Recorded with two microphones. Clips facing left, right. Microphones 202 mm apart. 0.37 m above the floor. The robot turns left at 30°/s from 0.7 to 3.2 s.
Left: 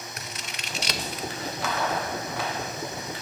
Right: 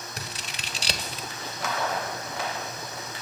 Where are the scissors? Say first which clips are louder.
Even; 30° right (ahead or behind), 1.0 m.